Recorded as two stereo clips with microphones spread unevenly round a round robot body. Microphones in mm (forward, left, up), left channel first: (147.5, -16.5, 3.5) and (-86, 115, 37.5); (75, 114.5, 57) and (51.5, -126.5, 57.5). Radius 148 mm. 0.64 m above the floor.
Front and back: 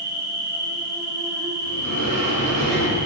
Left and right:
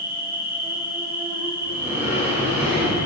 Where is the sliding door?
Straight behind, 3.5 m.